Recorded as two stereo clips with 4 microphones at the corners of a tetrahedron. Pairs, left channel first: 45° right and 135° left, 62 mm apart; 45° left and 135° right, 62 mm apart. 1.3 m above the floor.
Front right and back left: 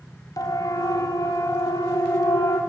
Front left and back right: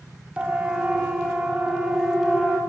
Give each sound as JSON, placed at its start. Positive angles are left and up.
{"t": 0.4, "sound": "a siren", "azimuth_deg": -60, "distance_m": 3.0}